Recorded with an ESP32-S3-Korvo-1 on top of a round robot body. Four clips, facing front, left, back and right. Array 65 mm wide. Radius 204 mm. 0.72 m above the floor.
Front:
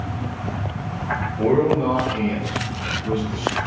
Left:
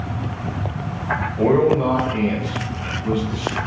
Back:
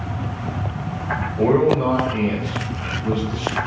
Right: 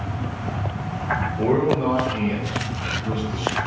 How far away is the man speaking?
About 2 m.